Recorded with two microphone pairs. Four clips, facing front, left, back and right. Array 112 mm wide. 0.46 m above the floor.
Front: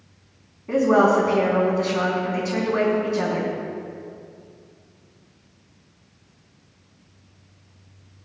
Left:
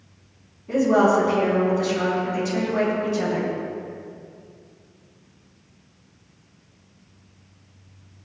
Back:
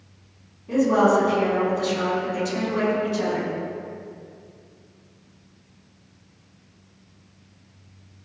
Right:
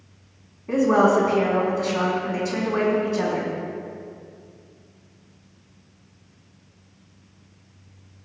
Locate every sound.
0.7 s a woman speaking: 50° right, 4 m